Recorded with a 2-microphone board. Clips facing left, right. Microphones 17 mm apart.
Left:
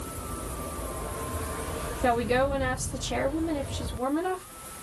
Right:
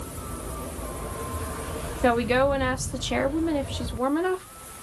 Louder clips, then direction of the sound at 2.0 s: Right 3 dB; 35° right (ahead or behind).